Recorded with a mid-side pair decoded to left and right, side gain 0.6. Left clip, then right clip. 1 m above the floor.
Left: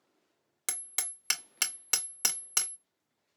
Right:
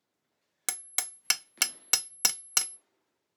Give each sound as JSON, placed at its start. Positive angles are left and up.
{"t": 0.7, "sound": "hammering", "azimuth_deg": -30, "distance_m": 0.6}